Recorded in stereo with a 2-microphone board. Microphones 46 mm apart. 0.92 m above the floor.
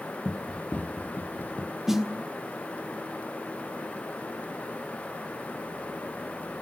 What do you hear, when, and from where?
0.2 s running footsteps: 15° left (ahead or behind), 1.0 m; by 1.8 s 55° left (ahead or behind), 1.6 m
1.9 s a snare drum: 10° right (ahead or behind), 1.4 m